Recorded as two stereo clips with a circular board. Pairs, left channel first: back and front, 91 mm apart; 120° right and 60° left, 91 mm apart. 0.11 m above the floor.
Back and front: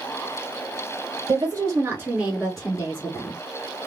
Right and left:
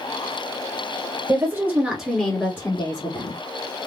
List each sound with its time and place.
1.3 s a woman speaking: 15° left, 1.9 m; by 3.4 s 130° right, 2 m